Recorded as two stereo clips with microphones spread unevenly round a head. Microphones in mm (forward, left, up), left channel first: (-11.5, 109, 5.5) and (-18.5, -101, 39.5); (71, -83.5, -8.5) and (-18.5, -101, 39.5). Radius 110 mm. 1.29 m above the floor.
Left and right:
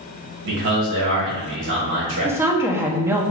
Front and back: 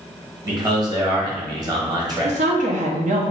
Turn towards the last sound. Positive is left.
turn(degrees=-175)